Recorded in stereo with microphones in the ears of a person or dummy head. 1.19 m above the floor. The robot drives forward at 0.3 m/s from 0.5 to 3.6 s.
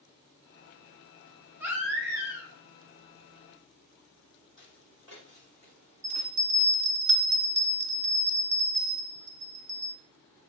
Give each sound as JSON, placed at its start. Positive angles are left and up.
{"t": 1.6, "sound": "a baby crying", "side_deg": -10, "distance_m": 1.6}
{"t": 4.6, "sound": "footsteps", "side_deg": -30, "distance_m": 1.9}
{"t": 6.0, "sound": "a bell", "side_deg": -55, "distance_m": 1.3}